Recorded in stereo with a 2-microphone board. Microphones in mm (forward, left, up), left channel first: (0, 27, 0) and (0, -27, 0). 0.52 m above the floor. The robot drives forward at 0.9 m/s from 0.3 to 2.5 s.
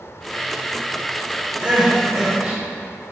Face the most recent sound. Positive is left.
turn(degrees=-15)  # may be behind; listen again after turning